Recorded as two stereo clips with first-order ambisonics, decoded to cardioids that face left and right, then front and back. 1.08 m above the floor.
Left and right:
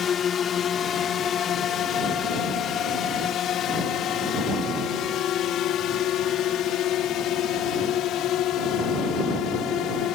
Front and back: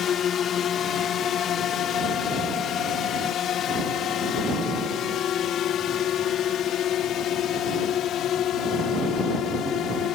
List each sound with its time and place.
0.0 s a drone: 40° left; by 10.2 s 50° left